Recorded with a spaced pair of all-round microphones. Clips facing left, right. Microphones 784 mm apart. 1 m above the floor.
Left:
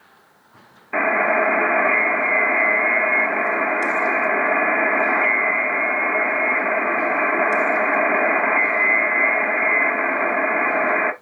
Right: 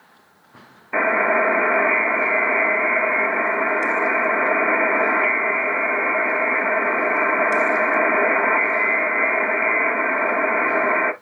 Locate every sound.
0.9 s a buzzer: centre (ahead or behind), 0.6 m